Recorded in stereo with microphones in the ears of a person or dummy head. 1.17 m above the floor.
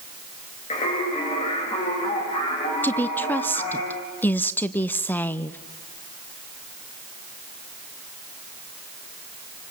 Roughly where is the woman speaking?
Centre.